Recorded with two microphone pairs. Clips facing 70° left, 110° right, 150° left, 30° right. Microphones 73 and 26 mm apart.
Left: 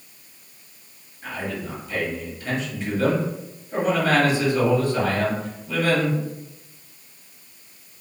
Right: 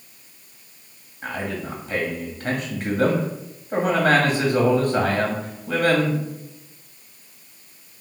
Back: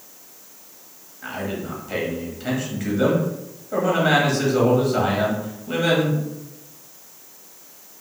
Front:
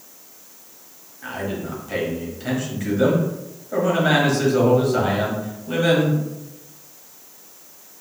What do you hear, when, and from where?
1.2 s a man speaking: 120° right, 1.4 m